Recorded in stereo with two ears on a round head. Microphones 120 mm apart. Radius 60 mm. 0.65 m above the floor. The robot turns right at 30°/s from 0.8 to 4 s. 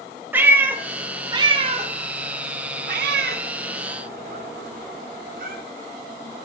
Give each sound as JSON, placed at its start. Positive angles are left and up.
{"t": 0.3, "sound": "a cat meowing", "side_deg": -15, "distance_m": 0.7}